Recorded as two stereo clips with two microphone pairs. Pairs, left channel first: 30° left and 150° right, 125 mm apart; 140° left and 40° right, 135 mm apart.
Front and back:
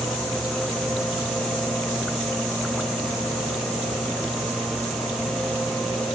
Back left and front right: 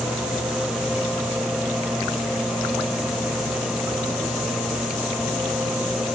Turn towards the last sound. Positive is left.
No sound to turn to.